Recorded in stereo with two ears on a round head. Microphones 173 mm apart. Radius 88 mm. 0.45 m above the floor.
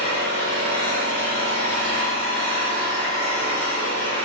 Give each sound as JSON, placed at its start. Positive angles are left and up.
{"t": 0.0, "sound": "an engine running", "side_deg": 45, "distance_m": 2.0}